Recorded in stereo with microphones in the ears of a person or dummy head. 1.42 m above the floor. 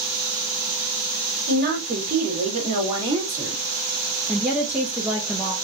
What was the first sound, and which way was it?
A woman speaking, 55° right (ahead or behind).